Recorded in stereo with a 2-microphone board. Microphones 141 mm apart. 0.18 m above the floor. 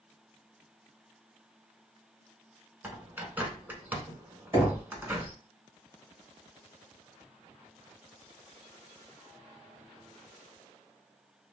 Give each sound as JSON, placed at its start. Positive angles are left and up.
{"t": 2.8, "sound": "a bird", "side_deg": -15, "distance_m": 0.5}
{"t": 4.5, "sound": "knocking", "side_deg": -15, "distance_m": 1.3}